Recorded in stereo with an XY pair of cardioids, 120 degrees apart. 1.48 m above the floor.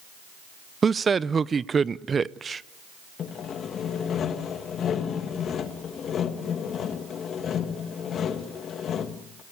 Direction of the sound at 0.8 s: 30° right.